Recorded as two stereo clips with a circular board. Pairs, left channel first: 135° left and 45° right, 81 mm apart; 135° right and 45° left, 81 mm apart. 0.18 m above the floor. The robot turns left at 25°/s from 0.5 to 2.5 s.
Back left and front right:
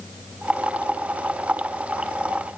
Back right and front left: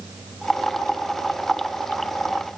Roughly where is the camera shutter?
No camera shutter in this recording.